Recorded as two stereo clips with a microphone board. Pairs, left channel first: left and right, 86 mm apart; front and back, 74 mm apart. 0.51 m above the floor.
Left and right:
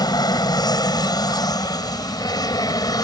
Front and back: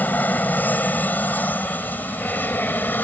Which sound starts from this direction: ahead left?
An aircraft, at 0.0 s.